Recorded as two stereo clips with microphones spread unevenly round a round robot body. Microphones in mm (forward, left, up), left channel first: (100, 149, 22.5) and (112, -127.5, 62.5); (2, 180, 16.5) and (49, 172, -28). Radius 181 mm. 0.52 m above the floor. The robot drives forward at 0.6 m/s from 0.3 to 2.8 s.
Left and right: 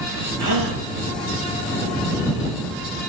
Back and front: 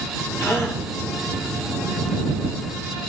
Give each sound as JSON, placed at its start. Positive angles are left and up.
{"t": 0.4, "sound": "a gasp", "azimuth_deg": -110, "distance_m": 9.5}